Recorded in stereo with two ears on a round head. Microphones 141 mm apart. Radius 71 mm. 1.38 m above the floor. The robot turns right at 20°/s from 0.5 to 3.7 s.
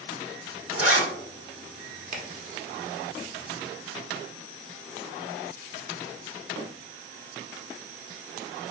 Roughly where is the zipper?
Centre.